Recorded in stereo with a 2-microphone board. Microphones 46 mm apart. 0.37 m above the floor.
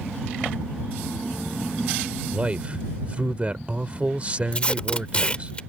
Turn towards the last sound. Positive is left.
turn(degrees=25)  # may be behind; listen again after turning